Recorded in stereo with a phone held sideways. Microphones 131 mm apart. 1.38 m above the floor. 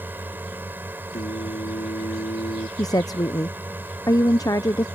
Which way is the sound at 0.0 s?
15° right (ahead or behind).